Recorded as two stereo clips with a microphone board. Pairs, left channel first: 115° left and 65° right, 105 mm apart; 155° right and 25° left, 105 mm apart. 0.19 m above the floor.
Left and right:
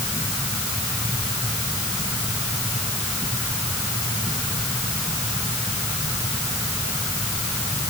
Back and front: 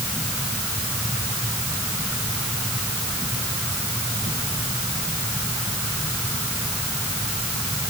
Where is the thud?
No thud in this recording.